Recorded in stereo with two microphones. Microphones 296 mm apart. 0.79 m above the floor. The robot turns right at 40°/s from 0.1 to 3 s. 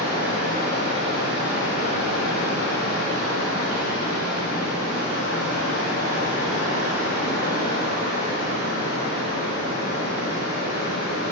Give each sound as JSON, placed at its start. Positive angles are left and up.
{"t": 0.0, "sound": "running water", "azimuth_deg": 15, "distance_m": 1.1}